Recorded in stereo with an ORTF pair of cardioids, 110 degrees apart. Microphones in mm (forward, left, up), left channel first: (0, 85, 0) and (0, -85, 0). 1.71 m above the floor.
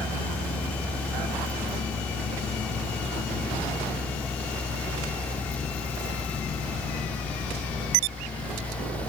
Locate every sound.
0.0 s a fan: 10° left